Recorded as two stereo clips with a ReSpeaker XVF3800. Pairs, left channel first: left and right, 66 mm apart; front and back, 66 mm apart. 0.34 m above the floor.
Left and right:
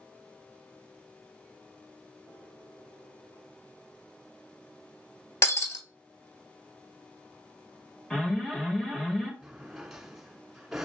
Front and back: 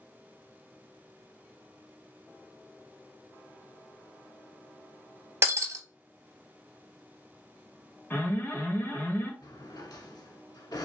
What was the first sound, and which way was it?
Breaking glass, 130° left.